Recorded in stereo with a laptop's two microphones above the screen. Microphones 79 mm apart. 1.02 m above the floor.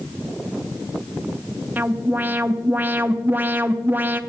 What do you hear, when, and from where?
1.8 s an alarm: 25° right (ahead or behind), 0.9 m